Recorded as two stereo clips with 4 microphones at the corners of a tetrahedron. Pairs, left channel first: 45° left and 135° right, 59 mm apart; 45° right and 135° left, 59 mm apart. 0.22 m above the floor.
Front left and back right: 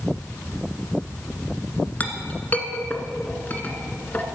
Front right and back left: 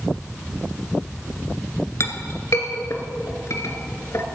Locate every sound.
2.0 s a clink: 15° right, 1.5 m